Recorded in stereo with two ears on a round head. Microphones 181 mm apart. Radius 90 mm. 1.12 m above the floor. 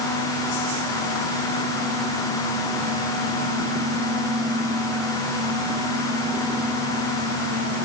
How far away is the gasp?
I don't hear a gasp.